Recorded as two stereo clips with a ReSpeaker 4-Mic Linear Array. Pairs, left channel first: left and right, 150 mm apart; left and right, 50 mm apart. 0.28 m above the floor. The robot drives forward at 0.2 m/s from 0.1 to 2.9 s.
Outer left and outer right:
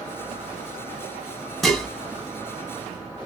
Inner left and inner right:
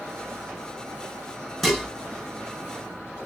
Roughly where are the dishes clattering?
Centre.